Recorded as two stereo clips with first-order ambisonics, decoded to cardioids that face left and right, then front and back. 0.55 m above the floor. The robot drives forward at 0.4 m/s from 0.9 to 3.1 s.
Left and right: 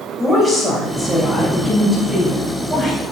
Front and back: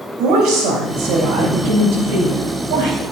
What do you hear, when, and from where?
0.2 s a woman speaking: 175° right, 3 m